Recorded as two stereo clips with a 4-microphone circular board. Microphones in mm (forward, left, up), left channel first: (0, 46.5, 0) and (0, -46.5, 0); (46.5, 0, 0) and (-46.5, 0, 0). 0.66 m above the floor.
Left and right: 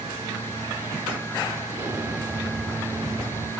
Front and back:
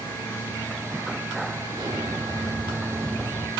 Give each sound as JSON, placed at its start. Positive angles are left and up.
{"t": 1.7, "sound": "an explosion", "azimuth_deg": -150, "distance_m": 1.9}